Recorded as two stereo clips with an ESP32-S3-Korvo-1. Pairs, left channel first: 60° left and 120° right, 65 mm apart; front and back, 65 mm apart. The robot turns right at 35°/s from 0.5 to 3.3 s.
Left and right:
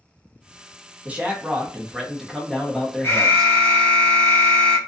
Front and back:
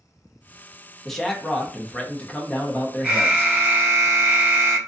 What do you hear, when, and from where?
1.1 s a man speaking: 80° right, 0.6 m; by 3.5 s 5° right, 0.6 m
3.0 s an alarm: 110° left, 0.9 m; by 4.8 s 120° left, 0.9 m